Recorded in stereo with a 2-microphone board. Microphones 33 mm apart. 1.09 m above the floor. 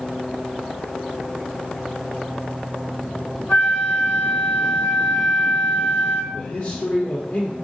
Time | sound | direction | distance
3.5 | a flute | 60° left (ahead or behind) | 2.5 m
6.3 | a man speaking | 50° left (ahead or behind) | 1.2 m